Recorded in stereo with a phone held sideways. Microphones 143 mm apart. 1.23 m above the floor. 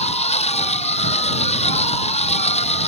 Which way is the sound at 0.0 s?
50° left (ahead or behind).